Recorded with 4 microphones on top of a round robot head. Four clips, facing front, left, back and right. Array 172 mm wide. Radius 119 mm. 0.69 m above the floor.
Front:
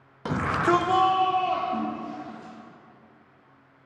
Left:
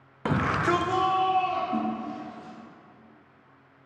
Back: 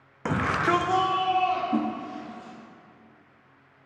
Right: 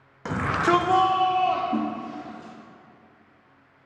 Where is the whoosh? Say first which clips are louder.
Right 2 dB, back 3 dB; 150° right, 0.9 m.